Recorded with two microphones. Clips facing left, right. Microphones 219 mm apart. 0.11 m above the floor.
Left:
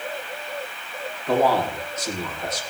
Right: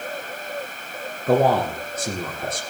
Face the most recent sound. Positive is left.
turn(degrees=-55)  # may be behind; listen again after turning